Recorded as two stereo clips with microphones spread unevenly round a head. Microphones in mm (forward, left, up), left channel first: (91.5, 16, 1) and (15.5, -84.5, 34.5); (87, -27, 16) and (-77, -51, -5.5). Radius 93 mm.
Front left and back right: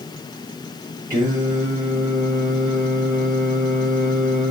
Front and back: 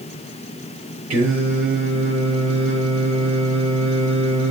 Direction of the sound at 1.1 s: 160° left.